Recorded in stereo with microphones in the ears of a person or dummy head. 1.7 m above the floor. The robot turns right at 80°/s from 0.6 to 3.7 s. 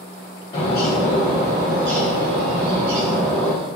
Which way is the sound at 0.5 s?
145° left.